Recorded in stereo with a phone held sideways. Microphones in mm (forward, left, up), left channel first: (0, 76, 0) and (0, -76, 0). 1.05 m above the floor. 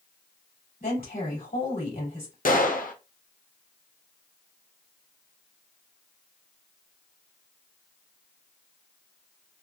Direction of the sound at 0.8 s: 85° left.